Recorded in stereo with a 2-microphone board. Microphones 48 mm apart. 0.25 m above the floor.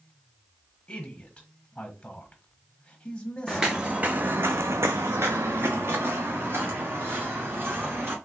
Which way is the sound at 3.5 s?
10° right (ahead or behind).